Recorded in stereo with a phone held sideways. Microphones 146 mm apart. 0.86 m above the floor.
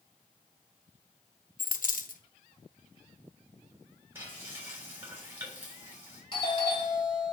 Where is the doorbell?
35° left (ahead or behind), 2.5 m.